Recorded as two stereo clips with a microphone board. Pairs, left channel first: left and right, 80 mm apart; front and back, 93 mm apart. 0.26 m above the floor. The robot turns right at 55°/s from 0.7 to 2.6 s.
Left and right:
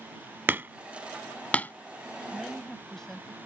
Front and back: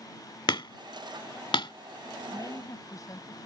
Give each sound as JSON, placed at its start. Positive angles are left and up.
{"t": 0.5, "sound": "hammering", "azimuth_deg": -30}
{"t": 2.3, "sound": "a woman speaking", "azimuth_deg": -10}